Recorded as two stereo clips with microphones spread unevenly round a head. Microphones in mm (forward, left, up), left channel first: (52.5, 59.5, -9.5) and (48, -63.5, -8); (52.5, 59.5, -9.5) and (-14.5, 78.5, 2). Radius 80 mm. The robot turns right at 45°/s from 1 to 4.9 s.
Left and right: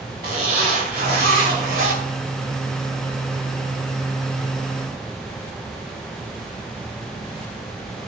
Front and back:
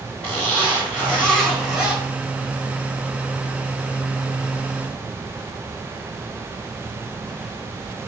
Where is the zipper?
130° right, 3 m; by 2.0 s 85° right, 3 m.